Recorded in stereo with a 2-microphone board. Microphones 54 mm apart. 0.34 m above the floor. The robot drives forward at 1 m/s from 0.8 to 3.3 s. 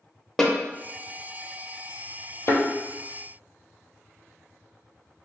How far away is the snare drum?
About 0.7 m.